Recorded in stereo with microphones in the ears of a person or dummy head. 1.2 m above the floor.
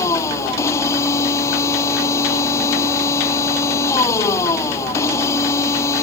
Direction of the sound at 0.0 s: 15° left (ahead or behind).